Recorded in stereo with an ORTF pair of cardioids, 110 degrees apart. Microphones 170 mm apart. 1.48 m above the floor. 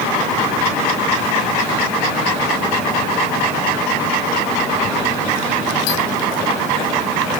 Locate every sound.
Only background noise.